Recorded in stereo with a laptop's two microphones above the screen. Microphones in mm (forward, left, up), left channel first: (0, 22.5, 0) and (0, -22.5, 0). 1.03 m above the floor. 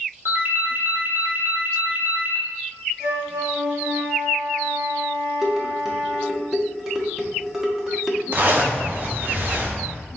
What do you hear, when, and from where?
0.2 s a ringtone: 55° right (ahead or behind), 0.7 m
3.0 s a flute: 65° right (ahead or behind), 1.1 m
5.4 s dishes clattering: 10° right (ahead or behind), 0.9 m
8.3 s a zipper: 40° right (ahead or behind), 0.6 m